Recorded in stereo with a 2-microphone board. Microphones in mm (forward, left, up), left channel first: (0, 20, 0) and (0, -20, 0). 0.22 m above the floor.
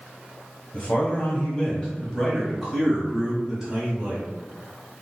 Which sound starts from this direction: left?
A man speaking, at 0.7 s.